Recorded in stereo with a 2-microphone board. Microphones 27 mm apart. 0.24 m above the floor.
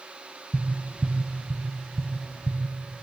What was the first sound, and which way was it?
Tapping, 25° left (ahead or behind).